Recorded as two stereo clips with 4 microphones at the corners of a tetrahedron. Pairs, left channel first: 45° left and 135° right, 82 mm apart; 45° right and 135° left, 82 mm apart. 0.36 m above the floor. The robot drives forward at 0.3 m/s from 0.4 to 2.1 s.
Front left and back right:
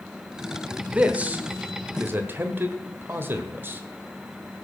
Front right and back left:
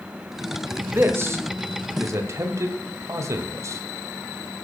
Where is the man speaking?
165° left, 0.9 m; by 3.8 s 170° left, 1.1 m.